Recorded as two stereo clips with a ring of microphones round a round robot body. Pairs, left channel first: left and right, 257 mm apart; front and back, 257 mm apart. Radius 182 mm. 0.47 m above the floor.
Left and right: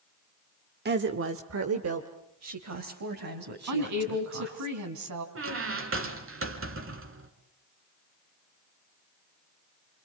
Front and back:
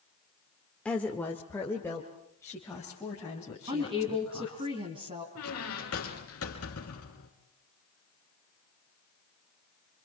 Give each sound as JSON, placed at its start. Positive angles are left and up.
{"t": 0.8, "sound": "a woman speaking", "azimuth_deg": -85, "distance_m": 1.0}
{"t": 3.7, "sound": "a woman speaking", "azimuth_deg": -105, "distance_m": 3.5}
{"t": 5.3, "sound": "a squeak", "azimuth_deg": -55, "distance_m": 3.0}